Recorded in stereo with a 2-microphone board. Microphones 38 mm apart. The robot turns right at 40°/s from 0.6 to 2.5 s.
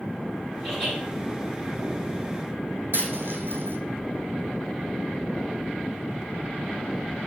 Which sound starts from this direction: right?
A dropped coin, at 2.9 s.